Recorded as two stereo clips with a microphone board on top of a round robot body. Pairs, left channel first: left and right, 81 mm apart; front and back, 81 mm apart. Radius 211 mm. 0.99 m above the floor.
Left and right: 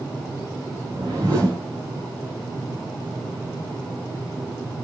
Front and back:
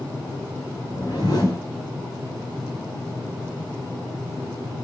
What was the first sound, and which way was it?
A whoosh, 40° right.